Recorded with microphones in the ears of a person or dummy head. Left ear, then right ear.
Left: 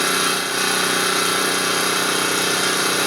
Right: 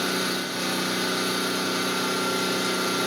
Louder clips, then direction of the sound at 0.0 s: Left 7 dB; 65° left (ahead or behind).